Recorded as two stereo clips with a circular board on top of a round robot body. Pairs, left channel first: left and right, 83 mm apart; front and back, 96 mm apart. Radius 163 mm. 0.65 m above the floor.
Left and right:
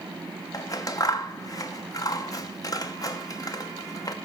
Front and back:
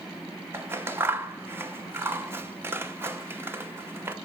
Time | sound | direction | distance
0.5 | scissors | 120° left | 0.9 m